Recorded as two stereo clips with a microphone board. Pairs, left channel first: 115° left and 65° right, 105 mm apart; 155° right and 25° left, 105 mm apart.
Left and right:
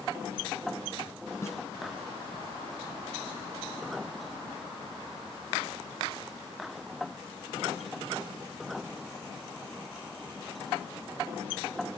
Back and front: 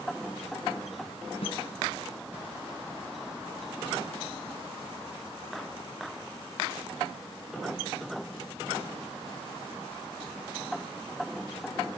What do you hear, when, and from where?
1.4 s a snare drum: 175° left, 4 m